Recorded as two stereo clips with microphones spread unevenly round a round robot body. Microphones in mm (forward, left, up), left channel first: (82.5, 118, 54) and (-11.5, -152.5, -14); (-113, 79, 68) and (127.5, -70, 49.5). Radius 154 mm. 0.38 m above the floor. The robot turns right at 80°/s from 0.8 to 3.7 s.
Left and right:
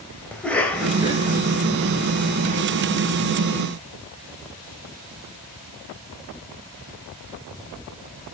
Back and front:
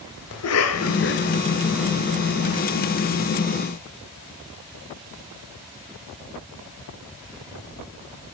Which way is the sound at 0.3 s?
165° left.